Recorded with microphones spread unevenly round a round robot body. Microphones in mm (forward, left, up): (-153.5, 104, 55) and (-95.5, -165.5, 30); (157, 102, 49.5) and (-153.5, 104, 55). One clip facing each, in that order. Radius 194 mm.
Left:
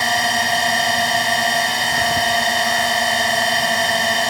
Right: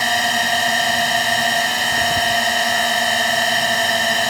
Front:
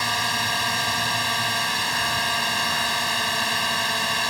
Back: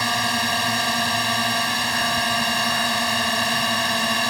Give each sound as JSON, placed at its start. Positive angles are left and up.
{"t": 0.0, "sound": "a drone", "azimuth_deg": -165}